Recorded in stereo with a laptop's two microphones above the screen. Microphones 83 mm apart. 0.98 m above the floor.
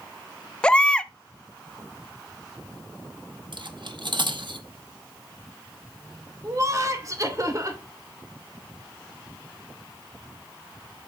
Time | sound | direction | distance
0.6 | a baby crying | 10° left (ahead or behind) | 0.6 m
3.5 | cutlery clinking | 60° right (ahead or behind) | 0.9 m
6.4 | laughter | 40° right (ahead or behind) | 2.5 m